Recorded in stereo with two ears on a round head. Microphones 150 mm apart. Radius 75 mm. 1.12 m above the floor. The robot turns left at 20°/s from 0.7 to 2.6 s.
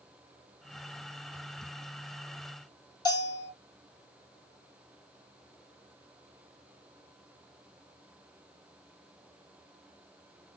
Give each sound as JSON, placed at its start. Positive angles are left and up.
{"t": 3.0, "sound": "a bell", "side_deg": 25, "distance_m": 1.9}